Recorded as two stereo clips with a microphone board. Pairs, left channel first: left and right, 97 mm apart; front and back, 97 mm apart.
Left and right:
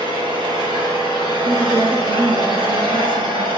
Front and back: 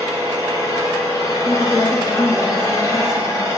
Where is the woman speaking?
75° right, 5.5 m.